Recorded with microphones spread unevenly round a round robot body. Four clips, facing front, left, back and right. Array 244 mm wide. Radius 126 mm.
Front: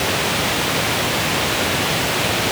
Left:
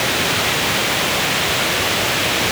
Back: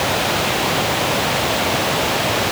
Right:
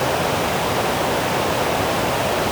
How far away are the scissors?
No scissors in this recording.